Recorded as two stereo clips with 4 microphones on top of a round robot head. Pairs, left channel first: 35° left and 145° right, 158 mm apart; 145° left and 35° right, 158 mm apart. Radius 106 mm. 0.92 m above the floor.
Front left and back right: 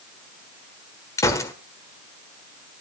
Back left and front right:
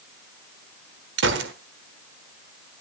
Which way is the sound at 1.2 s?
40° right.